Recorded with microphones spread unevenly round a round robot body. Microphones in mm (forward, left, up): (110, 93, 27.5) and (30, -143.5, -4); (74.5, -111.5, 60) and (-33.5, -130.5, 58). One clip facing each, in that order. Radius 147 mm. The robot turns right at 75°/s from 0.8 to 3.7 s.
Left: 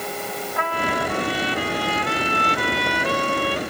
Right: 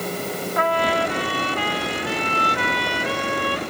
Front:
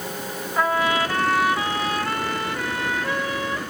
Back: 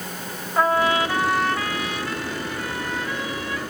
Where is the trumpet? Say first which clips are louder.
Right 4 dB, back 2 dB; 120° right, 3.5 m; by 3.6 s 90° left, 3.5 m.